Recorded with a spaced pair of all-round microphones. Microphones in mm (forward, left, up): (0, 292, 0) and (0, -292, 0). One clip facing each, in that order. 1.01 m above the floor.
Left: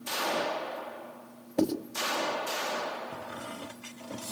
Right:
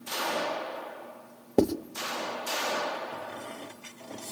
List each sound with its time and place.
1.6 s writing: 65° right (ahead or behind), 1.1 m
3.1 s a squeak: 35° left (ahead or behind), 0.8 m